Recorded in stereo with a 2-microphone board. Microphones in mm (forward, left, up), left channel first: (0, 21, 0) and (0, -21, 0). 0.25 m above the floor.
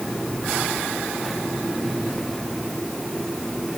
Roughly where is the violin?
No violin in this recording.